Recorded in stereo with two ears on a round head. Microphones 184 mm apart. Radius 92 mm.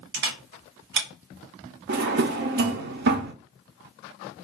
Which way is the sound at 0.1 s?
55° right (ahead or behind).